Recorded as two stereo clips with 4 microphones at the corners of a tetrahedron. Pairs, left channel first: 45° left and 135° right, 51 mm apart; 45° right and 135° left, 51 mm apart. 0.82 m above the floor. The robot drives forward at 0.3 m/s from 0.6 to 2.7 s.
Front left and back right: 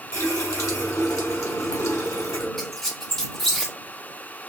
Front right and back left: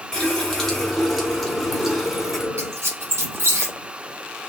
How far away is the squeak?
About 1.1 m.